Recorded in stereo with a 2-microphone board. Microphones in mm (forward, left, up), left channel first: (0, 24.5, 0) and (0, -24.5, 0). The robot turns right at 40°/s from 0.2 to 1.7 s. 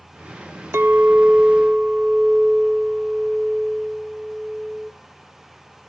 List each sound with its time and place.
0.7 s a clink: 60° right, 0.5 m; by 4.9 s 25° right, 0.5 m